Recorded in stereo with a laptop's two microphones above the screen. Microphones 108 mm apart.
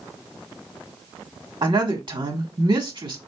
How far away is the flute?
I don't hear a flute.